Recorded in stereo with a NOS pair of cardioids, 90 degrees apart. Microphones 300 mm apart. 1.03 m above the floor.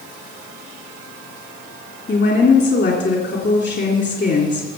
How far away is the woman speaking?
About 3 m.